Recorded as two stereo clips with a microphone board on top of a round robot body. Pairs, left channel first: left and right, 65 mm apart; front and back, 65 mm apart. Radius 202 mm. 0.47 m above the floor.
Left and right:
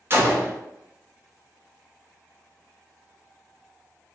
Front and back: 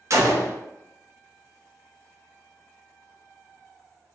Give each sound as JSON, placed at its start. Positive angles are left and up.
{"t": 0.1, "sound": "a gunshot", "azimuth_deg": -140, "distance_m": 0.8}